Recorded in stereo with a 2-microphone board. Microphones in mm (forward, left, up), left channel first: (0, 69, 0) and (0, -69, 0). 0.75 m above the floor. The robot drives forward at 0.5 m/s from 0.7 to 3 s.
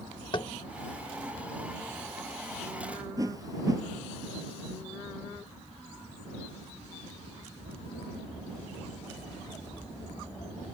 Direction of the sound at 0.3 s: 40° left (ahead or behind).